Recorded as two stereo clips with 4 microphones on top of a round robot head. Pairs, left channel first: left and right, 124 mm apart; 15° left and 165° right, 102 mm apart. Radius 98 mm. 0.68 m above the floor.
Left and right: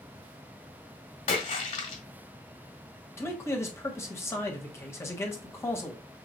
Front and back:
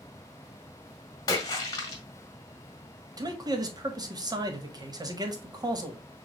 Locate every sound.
1.3 s a splash: 65° left, 1.7 m
3.2 s a man speaking: 155° left, 1.4 m